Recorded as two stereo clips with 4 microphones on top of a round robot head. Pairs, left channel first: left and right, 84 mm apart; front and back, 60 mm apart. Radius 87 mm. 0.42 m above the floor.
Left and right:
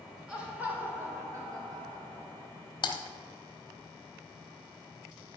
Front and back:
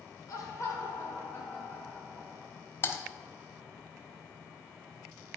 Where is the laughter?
10° right, 3 m; by 2.5 s 90° right, 2.5 m.